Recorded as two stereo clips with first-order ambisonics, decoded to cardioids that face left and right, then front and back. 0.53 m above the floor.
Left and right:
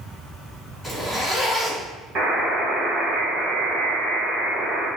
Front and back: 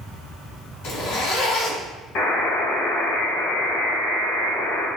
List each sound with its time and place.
0.8 s a zipper: 5° right, 1.9 m
2.1 s a buzzer: 35° right, 1.8 m